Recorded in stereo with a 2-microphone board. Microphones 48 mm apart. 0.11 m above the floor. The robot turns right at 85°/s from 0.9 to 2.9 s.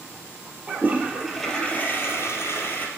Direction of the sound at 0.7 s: 40° right.